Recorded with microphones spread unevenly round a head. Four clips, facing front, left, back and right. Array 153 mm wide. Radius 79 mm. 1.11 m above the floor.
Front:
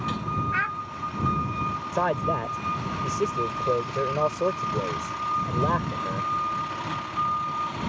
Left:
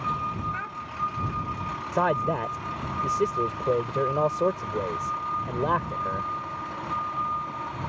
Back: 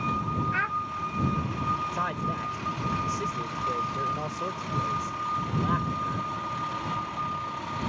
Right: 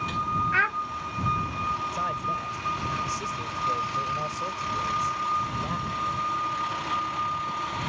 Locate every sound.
0.5 s a child speaking: 95° right
1.9 s a man speaking: 65° left